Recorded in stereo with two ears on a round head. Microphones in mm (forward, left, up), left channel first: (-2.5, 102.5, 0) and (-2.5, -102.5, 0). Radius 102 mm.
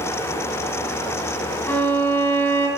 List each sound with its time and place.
1.7 s a violin: 10° left (ahead or behind), 4 m